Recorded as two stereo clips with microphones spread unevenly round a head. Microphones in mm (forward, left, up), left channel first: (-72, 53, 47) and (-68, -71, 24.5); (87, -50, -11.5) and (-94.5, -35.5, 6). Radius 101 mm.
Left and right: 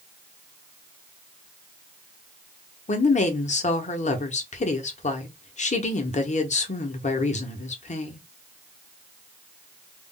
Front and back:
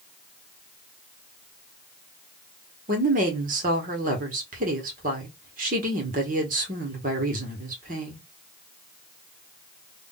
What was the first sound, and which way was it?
A woman speaking, 120° left.